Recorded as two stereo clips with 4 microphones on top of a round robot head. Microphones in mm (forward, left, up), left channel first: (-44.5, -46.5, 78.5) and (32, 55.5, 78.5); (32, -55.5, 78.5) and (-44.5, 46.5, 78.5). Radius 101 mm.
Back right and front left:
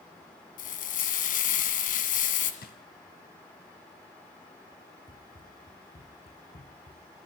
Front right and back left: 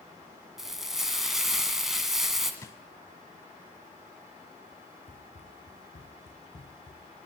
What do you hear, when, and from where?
0.6 s frying: 145° right, 1.9 m
2.6 s a drawer: 120° right, 1.4 m
5.1 s running footsteps: 70° right, 4.5 m; by 7.2 s 95° right, 3.5 m